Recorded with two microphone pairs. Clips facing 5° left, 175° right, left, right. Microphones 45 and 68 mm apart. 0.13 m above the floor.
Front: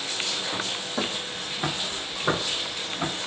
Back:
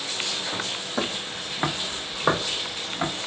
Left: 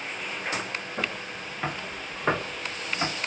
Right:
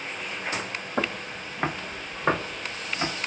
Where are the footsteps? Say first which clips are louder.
Back 2 dB, right 6 dB; 100° right, 0.7 m; by 3.1 s straight behind, 1.9 m.